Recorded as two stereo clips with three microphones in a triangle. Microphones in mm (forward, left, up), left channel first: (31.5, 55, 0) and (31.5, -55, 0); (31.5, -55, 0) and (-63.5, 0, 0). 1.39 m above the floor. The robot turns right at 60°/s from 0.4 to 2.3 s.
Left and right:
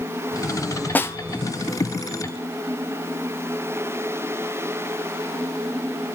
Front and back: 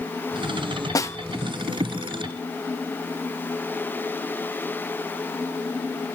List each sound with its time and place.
0.9 s a snare drum: 20° left, 0.7 m; by 1.2 s 30° left, 0.7 m